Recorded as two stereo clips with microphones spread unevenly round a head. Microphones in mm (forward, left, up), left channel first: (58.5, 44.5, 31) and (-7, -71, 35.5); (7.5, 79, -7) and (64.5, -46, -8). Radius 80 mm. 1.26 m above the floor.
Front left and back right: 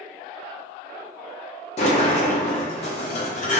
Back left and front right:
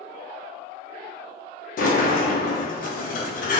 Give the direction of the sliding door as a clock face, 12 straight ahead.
9 o'clock.